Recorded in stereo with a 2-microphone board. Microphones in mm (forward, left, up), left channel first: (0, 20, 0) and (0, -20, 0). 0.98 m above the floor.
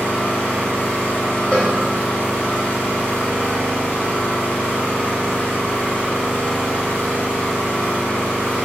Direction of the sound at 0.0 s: 55° left (ahead or behind).